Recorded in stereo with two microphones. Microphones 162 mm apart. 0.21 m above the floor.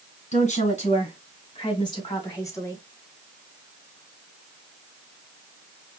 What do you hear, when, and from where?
0.3 s a woman speaking: 45° left (ahead or behind), 2 m; by 2.8 s 15° left (ahead or behind), 1.9 m